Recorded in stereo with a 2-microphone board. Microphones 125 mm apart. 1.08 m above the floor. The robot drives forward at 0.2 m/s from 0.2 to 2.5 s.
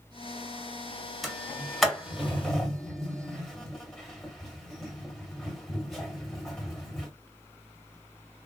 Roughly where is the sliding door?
Centre.